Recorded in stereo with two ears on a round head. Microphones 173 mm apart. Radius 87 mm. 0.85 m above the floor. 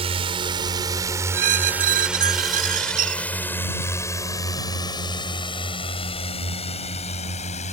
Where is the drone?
30° right (ahead or behind); by 7.7 s 35° left (ahead or behind).